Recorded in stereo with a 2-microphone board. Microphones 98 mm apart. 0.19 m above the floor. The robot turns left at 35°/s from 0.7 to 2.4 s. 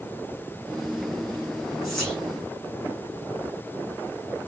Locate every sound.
1.8 s whispering: centre (ahead or behind), 2.5 m; by 2.2 s 10° left (ahead or behind), 2.5 m